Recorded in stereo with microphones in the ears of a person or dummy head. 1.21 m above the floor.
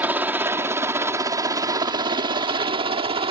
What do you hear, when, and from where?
0.0 s a helicopter: 10° right (ahead or behind); by 3.3 s 30° right (ahead or behind)